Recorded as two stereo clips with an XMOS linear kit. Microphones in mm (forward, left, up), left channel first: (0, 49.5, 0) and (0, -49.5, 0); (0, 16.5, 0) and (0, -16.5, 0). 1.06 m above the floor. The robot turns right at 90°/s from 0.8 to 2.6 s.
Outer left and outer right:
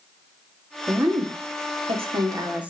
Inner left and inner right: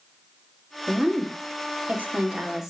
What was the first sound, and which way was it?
A woman speaking, 10° right (ahead or behind).